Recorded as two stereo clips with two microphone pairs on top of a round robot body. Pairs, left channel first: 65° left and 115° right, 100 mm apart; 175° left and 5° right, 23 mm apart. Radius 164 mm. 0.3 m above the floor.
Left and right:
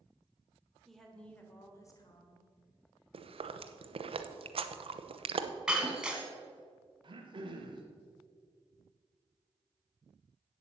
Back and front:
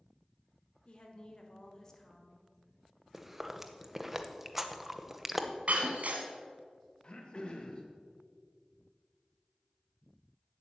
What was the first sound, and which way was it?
A woman speaking, 160° left.